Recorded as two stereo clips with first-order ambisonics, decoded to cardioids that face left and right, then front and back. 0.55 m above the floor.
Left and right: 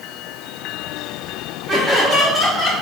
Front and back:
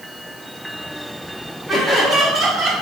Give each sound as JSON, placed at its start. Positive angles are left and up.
{"t": 1.7, "sound": "laughter", "azimuth_deg": -90, "distance_m": 0.8}